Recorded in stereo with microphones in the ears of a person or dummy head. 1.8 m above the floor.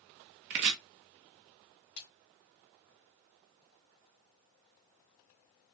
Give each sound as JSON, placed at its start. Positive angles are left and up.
{"t": 0.5, "sound": "chopping", "side_deg": -55, "distance_m": 0.9}
{"t": 2.0, "sound": "a splash", "side_deg": 60, "distance_m": 3.5}